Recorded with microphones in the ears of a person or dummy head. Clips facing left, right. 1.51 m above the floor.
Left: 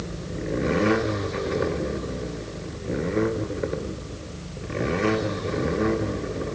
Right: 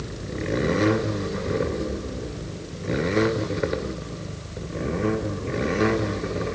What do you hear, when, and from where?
Only background noise.